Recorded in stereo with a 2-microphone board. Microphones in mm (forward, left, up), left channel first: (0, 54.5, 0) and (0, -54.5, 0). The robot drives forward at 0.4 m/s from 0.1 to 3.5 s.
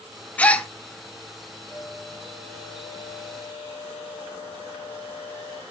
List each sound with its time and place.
0.4 s a gasp: 10° left (ahead or behind), 0.8 m
1.7 s a flute: 75° left (ahead or behind), 7 m; by 5.6 s 70° left (ahead or behind), 7.5 m